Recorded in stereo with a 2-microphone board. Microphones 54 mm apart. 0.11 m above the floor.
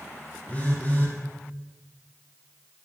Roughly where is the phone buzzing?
Left.